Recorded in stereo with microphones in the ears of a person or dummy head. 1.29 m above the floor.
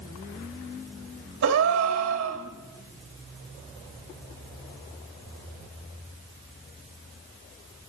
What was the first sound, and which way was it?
A gasp, 70° right (ahead or behind).